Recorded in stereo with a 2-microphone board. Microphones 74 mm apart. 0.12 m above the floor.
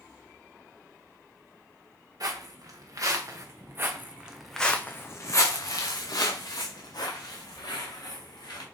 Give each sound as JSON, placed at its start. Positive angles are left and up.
{"t": 2.2, "sound": "footsteps", "side_deg": -60, "distance_m": 1.5}